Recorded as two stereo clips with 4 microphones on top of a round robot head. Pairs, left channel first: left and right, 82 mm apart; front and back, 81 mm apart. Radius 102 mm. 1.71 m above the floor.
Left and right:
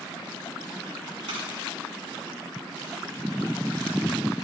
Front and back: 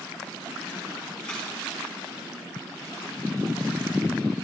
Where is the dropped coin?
80° right, 5.5 m.